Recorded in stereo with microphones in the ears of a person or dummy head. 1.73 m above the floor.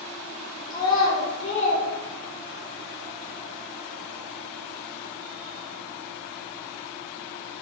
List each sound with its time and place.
0.7 s a child speaking: 25° left (ahead or behind), 1.9 m; by 2.7 s 60° left (ahead or behind), 2 m